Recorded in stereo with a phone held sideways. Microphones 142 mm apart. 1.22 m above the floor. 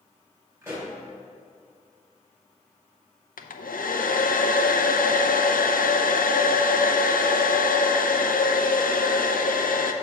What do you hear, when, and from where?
0.6 s a pop: 20° right (ahead or behind), 3 m
3.4 s a hair dryer: 80° left, 0.5 m